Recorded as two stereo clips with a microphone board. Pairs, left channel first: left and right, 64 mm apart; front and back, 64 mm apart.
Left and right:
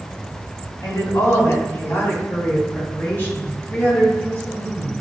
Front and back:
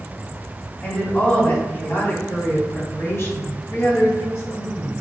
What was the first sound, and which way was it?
A woman speaking, 65° left.